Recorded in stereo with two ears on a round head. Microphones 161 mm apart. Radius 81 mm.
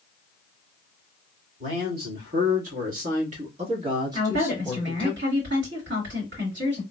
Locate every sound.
1.6 s a man speaking: 60° right (ahead or behind), 2 m; by 5.1 s 10° left (ahead or behind), 1.0 m
4.1 s a woman speaking: 70° right (ahead or behind), 2 m